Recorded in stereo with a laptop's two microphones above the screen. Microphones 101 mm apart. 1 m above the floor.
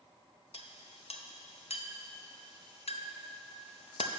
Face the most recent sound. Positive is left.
turn(degrees=85)